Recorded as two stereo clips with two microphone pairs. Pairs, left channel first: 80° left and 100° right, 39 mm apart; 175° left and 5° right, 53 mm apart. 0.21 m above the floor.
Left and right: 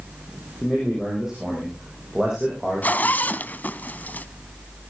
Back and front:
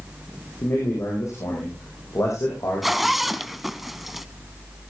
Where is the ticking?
No ticking in this recording.